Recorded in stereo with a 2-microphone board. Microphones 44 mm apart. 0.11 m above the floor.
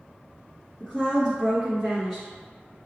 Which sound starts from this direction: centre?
A woman speaking, at 0.8 s.